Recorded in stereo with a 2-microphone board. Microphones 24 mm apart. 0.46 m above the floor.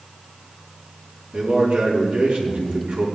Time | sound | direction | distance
1.3 | a man speaking | 60° right (ahead or behind) | 5 m